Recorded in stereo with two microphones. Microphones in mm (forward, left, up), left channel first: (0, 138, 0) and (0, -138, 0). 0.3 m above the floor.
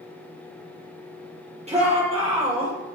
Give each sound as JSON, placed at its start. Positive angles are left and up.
{"t": 1.7, "sound": "a shout", "side_deg": -25, "distance_m": 8.5}